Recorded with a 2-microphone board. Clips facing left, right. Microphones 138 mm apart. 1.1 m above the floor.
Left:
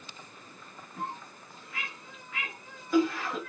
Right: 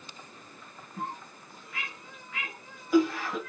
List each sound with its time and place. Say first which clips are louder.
1.0 s a cough: right 1 dB; 10° right (ahead or behind), 1.0 m